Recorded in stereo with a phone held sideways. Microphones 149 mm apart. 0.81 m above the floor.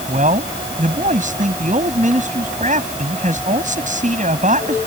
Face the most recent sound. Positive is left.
turn(degrees=-60)  # may be behind; listen again after turning